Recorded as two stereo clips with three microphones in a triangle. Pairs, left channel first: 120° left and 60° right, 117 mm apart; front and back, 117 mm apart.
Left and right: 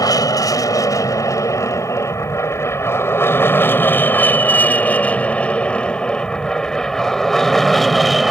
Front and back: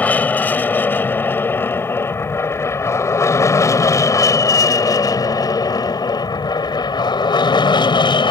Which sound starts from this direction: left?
An aircraft, at 0.0 s.